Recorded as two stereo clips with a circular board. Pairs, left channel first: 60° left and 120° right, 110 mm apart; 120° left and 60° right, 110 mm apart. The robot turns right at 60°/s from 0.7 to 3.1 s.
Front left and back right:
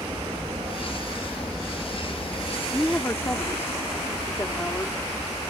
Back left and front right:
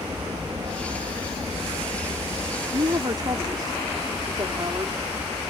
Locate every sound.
0.0 s an aircraft: 90° right; by 5.5 s 55° left
2.7 s a woman speaking: 35° right; by 5.0 s 10° right